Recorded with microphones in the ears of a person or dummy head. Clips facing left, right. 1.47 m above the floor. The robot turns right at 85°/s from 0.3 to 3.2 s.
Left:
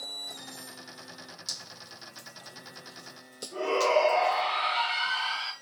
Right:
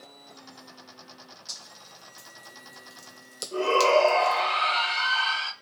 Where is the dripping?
50° left (ahead or behind), 0.7 m; by 4.4 s 75° right (ahead or behind), 0.7 m.